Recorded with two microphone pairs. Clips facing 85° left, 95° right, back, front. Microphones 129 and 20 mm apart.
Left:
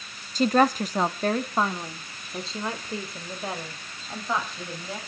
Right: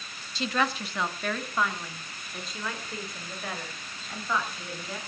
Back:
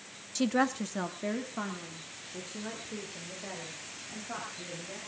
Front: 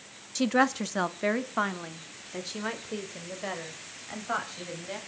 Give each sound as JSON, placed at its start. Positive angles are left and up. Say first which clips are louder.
{"t": 0.3, "sound": "a woman speaking", "louder": "left 8 dB, front 4 dB", "azimuth_deg": 75, "distance_m": 0.8}